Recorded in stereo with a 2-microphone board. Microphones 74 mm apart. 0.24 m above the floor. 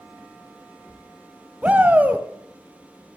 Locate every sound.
1.6 s a shout: 20° right (ahead or behind), 1.3 m